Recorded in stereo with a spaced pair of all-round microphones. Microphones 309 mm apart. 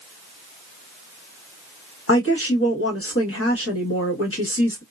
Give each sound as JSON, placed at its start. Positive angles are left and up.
{"t": 2.1, "sound": "a woman speaking", "side_deg": 45, "distance_m": 1.3}